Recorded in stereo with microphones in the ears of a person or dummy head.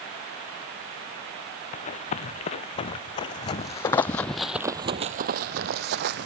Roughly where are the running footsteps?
Left.